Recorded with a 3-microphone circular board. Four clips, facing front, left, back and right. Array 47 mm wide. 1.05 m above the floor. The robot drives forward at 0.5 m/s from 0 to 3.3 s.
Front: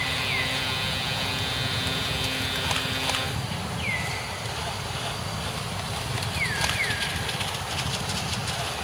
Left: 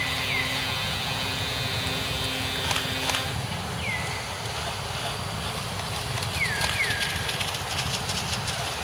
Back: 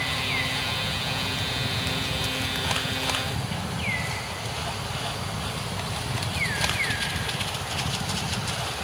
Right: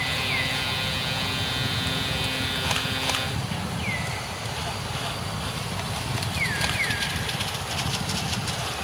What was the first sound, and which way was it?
Only background noise.